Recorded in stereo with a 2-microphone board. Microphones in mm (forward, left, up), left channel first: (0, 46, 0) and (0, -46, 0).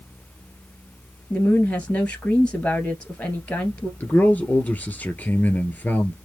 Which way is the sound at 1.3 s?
15° left (ahead or behind).